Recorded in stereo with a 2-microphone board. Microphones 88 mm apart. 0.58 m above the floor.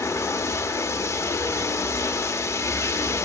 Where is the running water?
35° left (ahead or behind), 0.8 m.